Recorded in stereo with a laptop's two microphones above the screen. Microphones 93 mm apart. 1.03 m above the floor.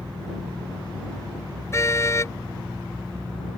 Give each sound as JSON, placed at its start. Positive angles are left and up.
{"t": 1.7, "sound": "a car horn", "side_deg": 30}